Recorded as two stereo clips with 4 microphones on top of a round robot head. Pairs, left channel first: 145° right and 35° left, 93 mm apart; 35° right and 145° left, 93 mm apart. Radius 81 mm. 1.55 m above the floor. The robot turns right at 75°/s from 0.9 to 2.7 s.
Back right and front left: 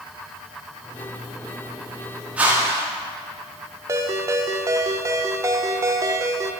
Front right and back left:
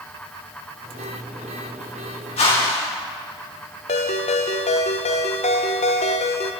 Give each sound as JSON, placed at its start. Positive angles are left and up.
{"t": 2.4, "sound": "a whoosh", "azimuth_deg": -45, "distance_m": 4.5}
{"t": 3.9, "sound": "a ringtone", "azimuth_deg": -25, "distance_m": 1.0}